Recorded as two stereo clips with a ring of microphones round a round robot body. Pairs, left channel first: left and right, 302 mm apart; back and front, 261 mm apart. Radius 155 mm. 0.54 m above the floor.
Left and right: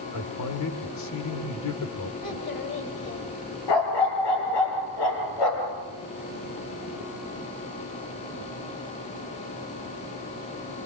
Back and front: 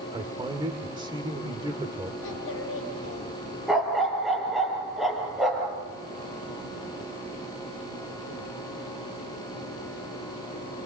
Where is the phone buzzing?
I don't hear a phone buzzing.